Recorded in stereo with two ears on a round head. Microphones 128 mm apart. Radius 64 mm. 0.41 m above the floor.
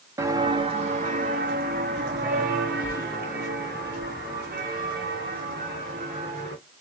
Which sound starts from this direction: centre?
Footsteps, at 0.2 s.